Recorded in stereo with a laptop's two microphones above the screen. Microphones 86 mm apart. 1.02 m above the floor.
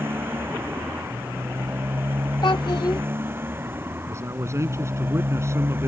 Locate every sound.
0.0 s a motorcycle: 25° right (ahead or behind)
2.4 s a child speaking: 55° left (ahead or behind)
4.1 s a man speaking: 30° right (ahead or behind)